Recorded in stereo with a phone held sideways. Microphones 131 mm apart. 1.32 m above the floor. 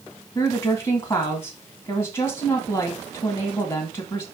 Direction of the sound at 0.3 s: 40° left (ahead or behind).